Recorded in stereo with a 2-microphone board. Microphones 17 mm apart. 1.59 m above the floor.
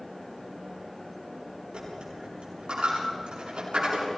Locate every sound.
1.7 s a dropped coin: 85° right, 8.5 m